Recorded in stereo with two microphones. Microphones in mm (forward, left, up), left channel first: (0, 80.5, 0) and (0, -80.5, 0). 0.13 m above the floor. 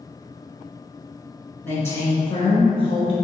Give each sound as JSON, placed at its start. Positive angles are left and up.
{"t": 1.6, "sound": "a woman speaking", "side_deg": 10, "distance_m": 1.2}